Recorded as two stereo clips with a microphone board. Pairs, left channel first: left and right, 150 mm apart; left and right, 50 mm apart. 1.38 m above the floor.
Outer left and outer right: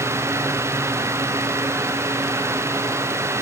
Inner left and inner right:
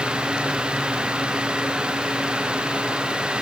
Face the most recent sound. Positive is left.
No sound to turn to.